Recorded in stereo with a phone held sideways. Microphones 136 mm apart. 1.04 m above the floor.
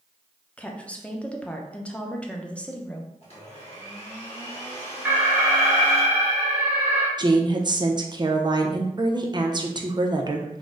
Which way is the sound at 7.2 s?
30° right (ahead or behind).